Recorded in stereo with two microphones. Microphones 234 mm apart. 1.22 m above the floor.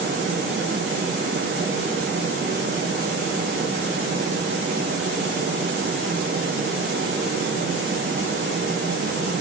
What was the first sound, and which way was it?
Only background noise.